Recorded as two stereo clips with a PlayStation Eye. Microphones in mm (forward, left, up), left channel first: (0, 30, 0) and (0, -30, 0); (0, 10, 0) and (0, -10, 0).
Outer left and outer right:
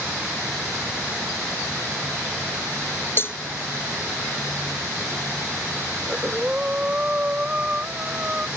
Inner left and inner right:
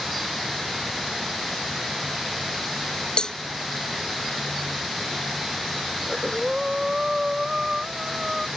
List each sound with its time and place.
3.2 s a cowbell: 45° left (ahead or behind)
6.0 s breathing: 25° right (ahead or behind)